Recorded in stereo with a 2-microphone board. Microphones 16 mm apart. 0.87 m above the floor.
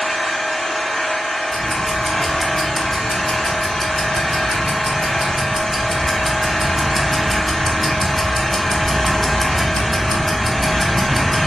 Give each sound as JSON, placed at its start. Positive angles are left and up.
{"t": 0.0, "sound": "an engine running", "side_deg": 65, "distance_m": 2.0}
{"t": 1.5, "sound": "ticking", "side_deg": 10, "distance_m": 1.1}